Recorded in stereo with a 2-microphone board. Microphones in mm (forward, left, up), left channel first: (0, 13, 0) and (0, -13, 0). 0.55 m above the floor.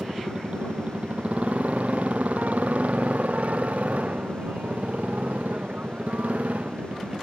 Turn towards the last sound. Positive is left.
turn(degrees=-75)  # may be behind; listen again after turning